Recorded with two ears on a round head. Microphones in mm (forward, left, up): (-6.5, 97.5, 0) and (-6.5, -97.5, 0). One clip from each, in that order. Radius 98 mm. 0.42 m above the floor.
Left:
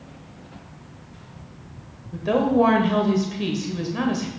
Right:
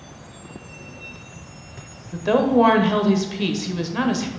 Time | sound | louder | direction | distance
2.1 | a woman speaking | right 2 dB | 20° right (ahead or behind) | 1.2 m